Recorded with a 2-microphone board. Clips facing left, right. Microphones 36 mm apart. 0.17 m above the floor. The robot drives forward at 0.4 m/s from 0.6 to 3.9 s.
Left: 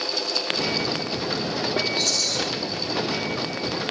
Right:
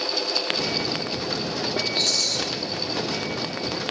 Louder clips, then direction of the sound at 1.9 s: Even; 45° right (ahead or behind).